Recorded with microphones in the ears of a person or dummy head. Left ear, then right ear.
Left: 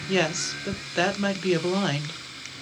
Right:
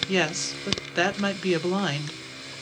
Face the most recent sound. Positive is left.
turn(degrees=-5)  # may be behind; listen again after turning